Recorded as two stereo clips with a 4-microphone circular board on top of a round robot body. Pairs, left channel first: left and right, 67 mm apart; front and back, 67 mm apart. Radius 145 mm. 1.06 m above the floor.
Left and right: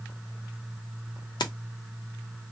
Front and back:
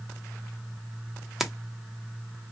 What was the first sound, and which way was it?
Keys jangling, 95° left.